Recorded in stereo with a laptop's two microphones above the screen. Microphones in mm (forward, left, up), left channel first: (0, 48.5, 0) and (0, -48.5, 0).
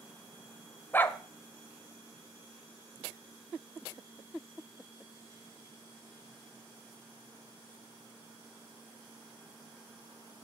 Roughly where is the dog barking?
Centre.